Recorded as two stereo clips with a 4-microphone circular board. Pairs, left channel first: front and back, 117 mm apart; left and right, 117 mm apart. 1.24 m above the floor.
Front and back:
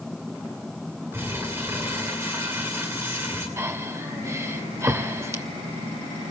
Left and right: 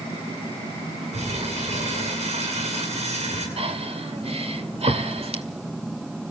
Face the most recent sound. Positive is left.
turn(degrees=-115)